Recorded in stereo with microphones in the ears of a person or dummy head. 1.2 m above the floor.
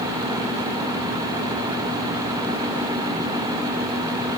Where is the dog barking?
No dog barking in this recording.